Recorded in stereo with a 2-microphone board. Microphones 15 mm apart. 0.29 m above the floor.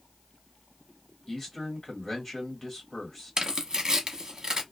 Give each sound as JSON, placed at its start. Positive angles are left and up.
{"t": 1.3, "sound": "a man speaking", "side_deg": 25, "distance_m": 1.7}
{"t": 3.4, "sound": "tearing paper", "side_deg": -45, "distance_m": 0.7}